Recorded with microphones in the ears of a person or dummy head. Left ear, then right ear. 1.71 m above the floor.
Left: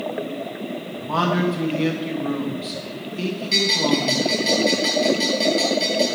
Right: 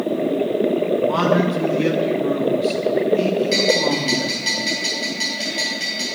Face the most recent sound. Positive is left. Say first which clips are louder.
# left 1 dB
turn(degrees=-5)  # may be behind; listen again after turning